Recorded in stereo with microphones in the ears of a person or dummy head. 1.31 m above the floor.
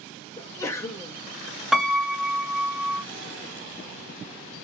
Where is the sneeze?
15° left (ahead or behind), 0.6 m.